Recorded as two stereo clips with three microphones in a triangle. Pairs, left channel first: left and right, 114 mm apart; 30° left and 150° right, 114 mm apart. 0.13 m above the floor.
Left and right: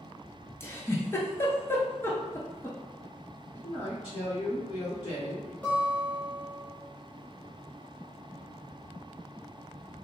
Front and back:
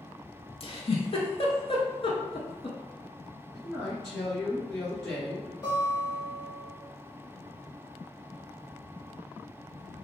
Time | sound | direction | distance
0.6 | a giggle | 30° left | 0.6 m
3.5 | a man speaking | 110° left | 1.5 m
5.6 | a guitar | 25° left | 1.6 m